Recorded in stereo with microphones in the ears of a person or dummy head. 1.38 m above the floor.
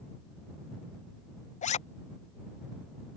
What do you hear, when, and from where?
1.6 s a zipper: 30° left (ahead or behind)